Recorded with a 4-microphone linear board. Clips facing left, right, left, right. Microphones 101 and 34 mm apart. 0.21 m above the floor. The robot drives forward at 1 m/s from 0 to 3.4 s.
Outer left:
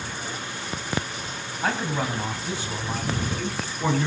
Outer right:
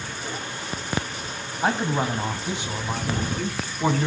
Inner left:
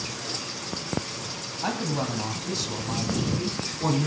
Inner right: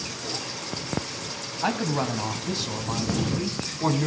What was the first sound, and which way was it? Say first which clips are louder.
A man speaking: outer right 3 dB, inner right 3 dB; 20° right (ahead or behind).